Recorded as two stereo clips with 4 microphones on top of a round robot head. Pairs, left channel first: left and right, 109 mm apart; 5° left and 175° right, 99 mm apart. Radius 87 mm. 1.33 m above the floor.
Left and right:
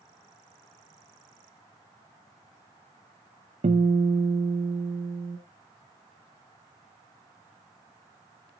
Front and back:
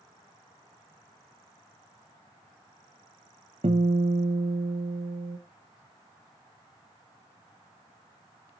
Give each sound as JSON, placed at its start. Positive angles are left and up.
{"t": 3.6, "sound": "a guitar", "azimuth_deg": -125, "distance_m": 1.0}